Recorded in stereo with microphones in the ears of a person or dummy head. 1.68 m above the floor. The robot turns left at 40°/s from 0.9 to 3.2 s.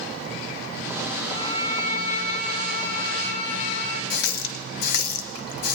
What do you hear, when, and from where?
1.3 s a violin: 160° left, 3 m; by 4.0 s 85° left, 3 m
4.1 s a running tap: 55° left (ahead or behind), 1.5 m